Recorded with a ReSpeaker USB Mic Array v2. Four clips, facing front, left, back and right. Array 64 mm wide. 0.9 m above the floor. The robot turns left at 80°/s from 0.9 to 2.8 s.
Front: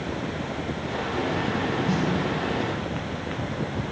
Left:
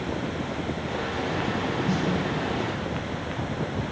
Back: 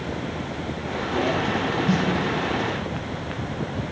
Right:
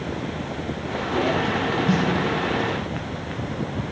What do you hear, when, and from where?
1.9 s a snare drum: 130° right, 4.5 m; by 2.1 s 150° right, 4.5 m